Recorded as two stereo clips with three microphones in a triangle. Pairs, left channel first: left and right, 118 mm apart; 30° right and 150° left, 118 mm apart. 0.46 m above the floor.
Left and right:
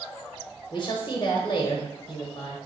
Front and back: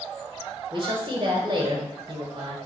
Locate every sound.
0.7 s a woman speaking: 115° left, 1.3 m